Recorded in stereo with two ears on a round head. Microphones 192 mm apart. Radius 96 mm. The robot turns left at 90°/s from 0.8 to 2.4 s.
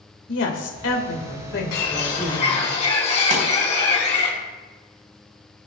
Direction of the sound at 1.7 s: 95° left.